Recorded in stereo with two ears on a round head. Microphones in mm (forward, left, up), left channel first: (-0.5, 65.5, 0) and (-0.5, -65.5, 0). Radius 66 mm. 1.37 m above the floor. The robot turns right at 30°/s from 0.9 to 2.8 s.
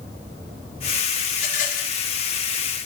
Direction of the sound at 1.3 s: 50° left (ahead or behind).